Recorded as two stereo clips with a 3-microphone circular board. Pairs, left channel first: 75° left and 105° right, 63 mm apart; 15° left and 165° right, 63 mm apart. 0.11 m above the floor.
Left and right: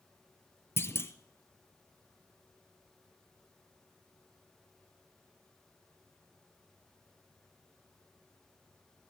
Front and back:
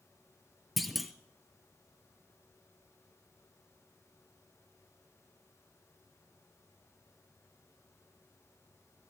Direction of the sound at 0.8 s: 105° left.